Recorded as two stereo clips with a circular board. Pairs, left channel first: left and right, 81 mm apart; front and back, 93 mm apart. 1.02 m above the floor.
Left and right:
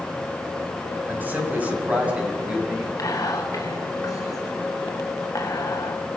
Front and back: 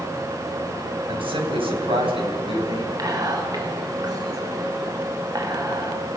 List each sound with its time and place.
1.1 s a man speaking: 155° right, 5.5 m; by 2.9 s 165° right, 8 m
3.0 s whispering: 135° left, 2.5 m